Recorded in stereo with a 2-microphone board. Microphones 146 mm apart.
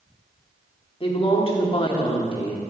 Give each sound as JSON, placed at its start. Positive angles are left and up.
{"t": 1.0, "sound": "a woman speaking", "side_deg": 35, "distance_m": 1.4}